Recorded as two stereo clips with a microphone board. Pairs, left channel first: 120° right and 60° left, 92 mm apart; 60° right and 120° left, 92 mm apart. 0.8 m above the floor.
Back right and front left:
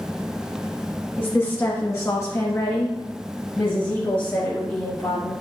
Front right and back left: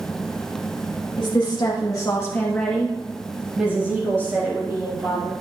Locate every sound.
1.2 s a woman speaking: 60° right, 1.3 m; by 5.3 s 165° left, 2 m